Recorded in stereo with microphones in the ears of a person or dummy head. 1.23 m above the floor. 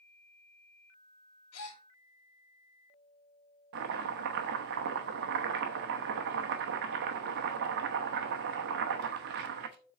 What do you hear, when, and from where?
1.5 s a gasp: 80° left, 2.5 m
3.7 s chopping: 50° right (ahead or behind), 0.8 m